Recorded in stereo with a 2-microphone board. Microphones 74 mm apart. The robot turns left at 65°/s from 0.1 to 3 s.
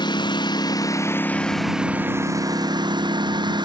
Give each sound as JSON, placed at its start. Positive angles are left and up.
{"t": 0.0, "sound": "a lawn mower", "azimuth_deg": 100}